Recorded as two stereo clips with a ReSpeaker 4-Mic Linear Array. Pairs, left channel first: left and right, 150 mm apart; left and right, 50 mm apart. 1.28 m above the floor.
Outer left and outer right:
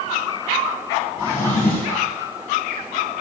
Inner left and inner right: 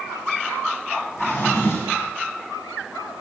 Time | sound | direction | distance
1.2 | a drawer | 80° left | 4.5 m